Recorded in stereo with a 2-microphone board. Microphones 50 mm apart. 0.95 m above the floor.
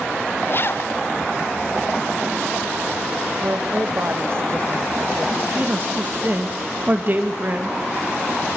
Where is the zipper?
45° left (ahead or behind), 0.6 m.